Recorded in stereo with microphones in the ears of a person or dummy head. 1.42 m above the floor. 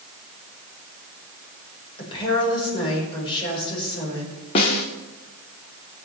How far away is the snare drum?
About 1.0 m.